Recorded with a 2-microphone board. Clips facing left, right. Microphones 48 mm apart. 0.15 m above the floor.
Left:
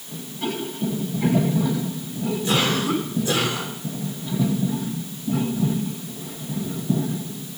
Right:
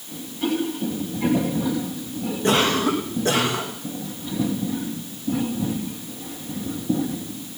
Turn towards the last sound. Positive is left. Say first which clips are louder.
# right 3 dB
turn(degrees=-45)  # may be behind; listen again after turning